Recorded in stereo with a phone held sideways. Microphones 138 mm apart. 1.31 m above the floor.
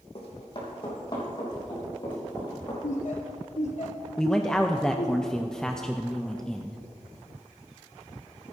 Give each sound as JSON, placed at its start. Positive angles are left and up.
{"t": 0.1, "sound": "running footsteps", "side_deg": 45, "distance_m": 3.0}
{"t": 2.8, "sound": "laughter", "side_deg": 60, "distance_m": 0.8}
{"t": 4.2, "sound": "a man speaking", "side_deg": 5, "distance_m": 0.5}